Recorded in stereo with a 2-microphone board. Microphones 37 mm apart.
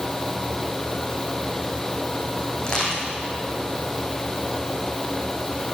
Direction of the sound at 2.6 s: 20° left (ahead or behind).